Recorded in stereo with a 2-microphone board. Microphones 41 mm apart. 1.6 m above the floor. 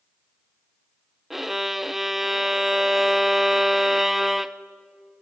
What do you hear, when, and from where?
1.3 s a violin: 5° right (ahead or behind), 0.6 m